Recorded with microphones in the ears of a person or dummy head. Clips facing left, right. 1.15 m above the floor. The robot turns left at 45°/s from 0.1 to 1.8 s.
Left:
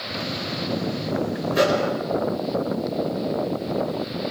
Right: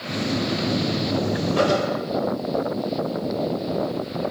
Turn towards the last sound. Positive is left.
turn(degrees=40)  # may be behind; listen again after turning